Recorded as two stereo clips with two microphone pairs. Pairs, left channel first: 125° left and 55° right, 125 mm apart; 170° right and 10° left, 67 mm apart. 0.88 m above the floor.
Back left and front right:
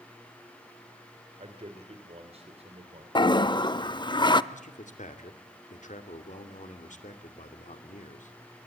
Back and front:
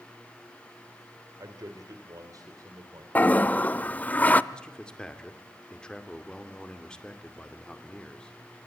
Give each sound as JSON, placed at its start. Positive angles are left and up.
{"t": 1.4, "sound": "a man speaking", "azimuth_deg": -20, "distance_m": 3.0}
{"t": 3.1, "sound": "a toilet flushing", "azimuth_deg": 145, "distance_m": 0.6}
{"t": 4.5, "sound": "a man speaking", "azimuth_deg": 115, "distance_m": 2.0}